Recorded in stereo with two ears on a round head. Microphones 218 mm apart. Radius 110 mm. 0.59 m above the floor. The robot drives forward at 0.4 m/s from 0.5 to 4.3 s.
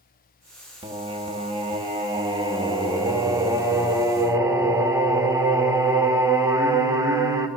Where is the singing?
25° right (ahead or behind), 1.0 m; by 7.5 s 15° right (ahead or behind), 1.7 m.